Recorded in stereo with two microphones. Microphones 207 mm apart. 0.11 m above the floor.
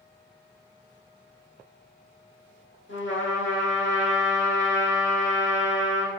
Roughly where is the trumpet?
Left.